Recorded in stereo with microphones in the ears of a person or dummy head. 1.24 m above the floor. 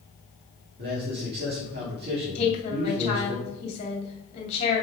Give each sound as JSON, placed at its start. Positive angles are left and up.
{"t": 0.8, "sound": "a man speaking", "side_deg": -55, "distance_m": 2.5}
{"t": 2.4, "sound": "a woman speaking", "side_deg": 35, "distance_m": 2.5}